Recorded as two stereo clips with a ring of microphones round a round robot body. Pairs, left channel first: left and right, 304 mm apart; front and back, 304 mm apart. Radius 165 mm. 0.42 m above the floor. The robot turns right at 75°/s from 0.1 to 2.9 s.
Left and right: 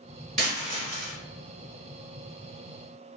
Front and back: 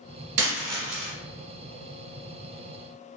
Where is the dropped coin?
165° right, 1.3 m; by 1.1 s 105° right, 1.3 m.